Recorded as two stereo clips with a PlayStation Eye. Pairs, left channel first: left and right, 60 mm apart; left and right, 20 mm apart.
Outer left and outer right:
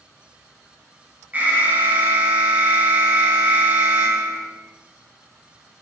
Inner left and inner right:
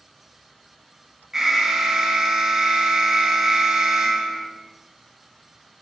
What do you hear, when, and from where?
1.3 s an alarm: 25° right (ahead or behind), 0.7 m